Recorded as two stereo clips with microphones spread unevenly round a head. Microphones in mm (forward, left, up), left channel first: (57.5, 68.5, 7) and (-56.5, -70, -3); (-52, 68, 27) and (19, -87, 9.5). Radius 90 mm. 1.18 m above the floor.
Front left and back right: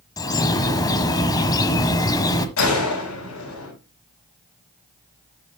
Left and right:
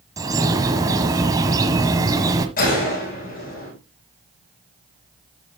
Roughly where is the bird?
Ahead.